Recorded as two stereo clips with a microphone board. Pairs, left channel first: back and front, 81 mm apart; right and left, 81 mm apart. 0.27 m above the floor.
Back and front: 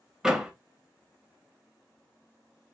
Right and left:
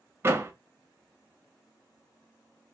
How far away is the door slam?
About 0.6 m.